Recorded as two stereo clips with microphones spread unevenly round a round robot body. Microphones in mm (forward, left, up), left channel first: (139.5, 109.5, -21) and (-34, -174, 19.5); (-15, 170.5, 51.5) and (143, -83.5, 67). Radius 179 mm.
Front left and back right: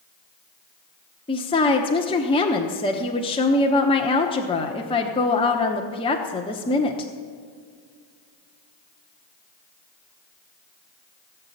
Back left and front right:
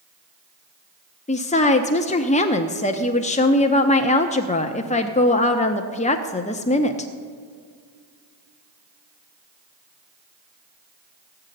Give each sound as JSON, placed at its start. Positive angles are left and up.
{"t": 1.3, "sound": "a woman speaking", "azimuth_deg": 95, "distance_m": 0.9}